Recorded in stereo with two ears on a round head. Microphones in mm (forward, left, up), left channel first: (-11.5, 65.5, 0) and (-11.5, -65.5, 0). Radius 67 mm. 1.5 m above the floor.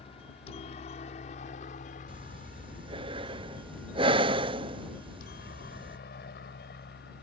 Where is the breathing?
35° right (ahead or behind).